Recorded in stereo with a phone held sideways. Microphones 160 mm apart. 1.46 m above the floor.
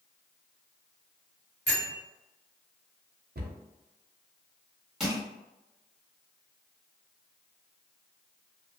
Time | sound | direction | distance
1.7 | a bell | 85° left | 0.9 m
3.4 | a cupboard door | 75° right (ahead or behind) | 0.5 m
5.0 | crushing | 5° right (ahead or behind) | 1.5 m